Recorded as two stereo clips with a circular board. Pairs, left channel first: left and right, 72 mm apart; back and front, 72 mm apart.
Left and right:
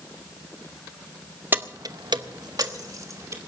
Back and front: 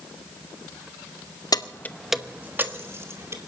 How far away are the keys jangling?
About 0.7 m.